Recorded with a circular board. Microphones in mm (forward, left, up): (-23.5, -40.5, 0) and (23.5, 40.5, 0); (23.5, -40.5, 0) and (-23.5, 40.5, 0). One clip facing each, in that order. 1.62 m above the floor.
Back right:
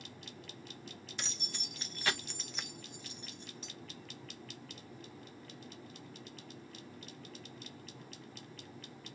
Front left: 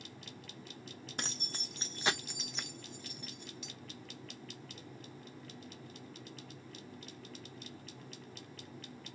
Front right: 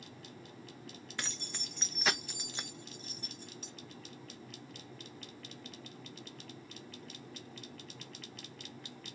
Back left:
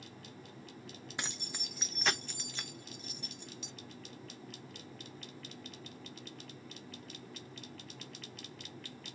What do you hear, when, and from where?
1.2 s keys jangling: 55° left, 1.1 m; by 3.7 s 85° right, 1.1 m